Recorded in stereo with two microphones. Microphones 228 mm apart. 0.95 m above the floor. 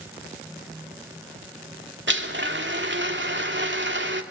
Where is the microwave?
No microwave in this recording.